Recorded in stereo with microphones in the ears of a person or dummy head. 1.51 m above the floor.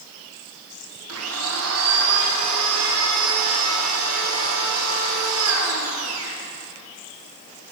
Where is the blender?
80° right, 0.9 m.